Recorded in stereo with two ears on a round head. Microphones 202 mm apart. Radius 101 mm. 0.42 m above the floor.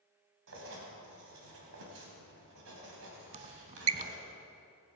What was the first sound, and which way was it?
Writing, 60° right (ahead or behind).